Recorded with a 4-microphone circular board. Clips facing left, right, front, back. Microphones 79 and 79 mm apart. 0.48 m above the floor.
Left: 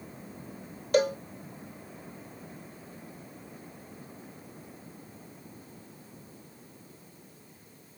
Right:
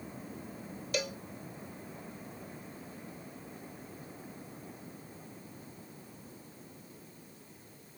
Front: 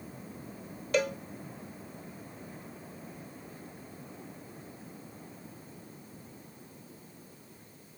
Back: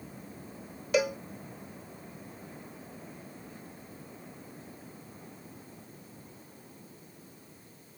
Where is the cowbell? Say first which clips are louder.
Left 12 dB, back 2 dB; 100° left.